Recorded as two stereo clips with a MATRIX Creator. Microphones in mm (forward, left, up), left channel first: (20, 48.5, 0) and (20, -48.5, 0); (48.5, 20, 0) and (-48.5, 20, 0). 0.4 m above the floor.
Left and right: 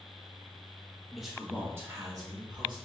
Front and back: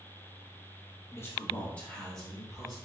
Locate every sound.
1.1 s a man speaking: 10° left, 0.9 m; by 2.8 s 95° right, 1.3 m